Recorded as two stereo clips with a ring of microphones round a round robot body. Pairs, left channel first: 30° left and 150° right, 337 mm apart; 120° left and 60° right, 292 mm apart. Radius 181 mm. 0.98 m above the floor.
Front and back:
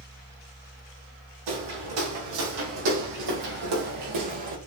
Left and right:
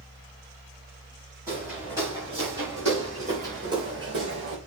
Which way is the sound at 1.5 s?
140° right.